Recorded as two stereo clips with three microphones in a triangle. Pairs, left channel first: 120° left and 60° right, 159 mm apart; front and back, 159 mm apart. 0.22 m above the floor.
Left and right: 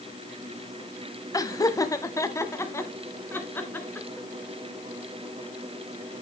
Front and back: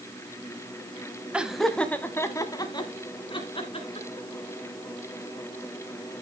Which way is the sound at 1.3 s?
110° left.